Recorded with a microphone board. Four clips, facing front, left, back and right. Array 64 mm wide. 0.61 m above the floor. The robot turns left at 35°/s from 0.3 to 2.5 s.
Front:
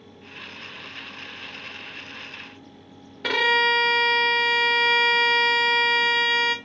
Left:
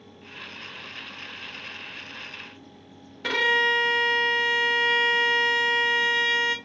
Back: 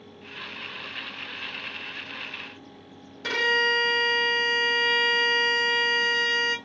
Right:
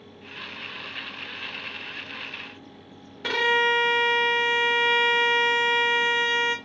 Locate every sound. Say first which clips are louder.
3.2 s a violin: even, front 3 dB; 5° right, 0.7 m